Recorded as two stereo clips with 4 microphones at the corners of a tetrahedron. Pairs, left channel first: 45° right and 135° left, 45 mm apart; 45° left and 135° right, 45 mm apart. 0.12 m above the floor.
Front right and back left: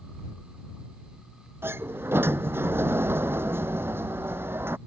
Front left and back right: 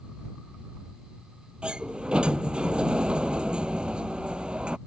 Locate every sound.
1.6 s a sliding door: 155° left